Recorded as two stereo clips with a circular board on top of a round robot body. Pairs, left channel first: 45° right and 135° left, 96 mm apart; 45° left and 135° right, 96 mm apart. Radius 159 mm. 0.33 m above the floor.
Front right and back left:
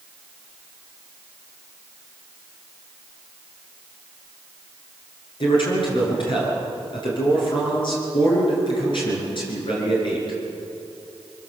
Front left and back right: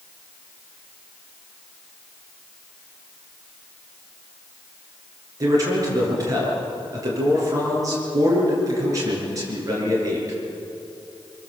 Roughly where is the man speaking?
Right.